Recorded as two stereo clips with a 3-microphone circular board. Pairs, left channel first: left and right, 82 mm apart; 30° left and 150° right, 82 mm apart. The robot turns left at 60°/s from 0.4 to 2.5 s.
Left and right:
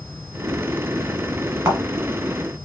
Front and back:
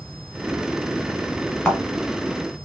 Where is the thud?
50° right, 1.6 m; by 1.8 s 60° right, 1.6 m.